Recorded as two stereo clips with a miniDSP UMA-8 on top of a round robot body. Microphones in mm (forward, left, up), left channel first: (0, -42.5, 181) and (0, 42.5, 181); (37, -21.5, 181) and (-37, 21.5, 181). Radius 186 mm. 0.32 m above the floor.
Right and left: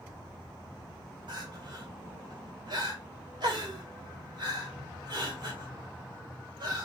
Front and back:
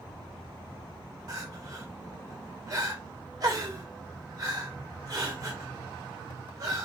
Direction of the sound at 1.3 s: 110° left.